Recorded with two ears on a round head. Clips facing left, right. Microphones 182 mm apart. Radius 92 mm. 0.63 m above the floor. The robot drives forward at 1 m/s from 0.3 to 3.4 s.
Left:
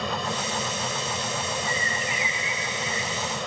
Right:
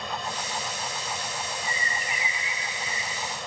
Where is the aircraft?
60° left (ahead or behind).